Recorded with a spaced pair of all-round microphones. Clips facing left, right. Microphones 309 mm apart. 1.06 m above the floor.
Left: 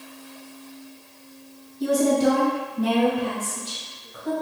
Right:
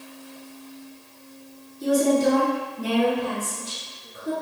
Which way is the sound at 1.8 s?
75° left (ahead or behind).